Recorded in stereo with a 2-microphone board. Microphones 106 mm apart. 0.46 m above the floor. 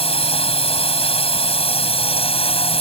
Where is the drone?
65° left (ahead or behind).